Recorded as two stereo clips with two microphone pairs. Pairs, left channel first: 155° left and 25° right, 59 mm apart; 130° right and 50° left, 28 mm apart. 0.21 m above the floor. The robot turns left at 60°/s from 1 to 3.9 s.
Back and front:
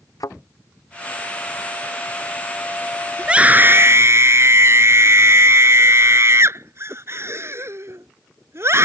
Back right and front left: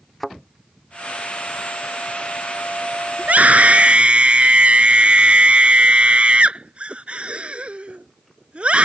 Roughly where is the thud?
Behind left.